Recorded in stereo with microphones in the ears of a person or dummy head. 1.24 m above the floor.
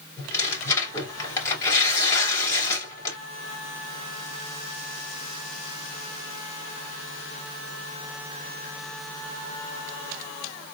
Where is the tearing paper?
15° left (ahead or behind), 3 m.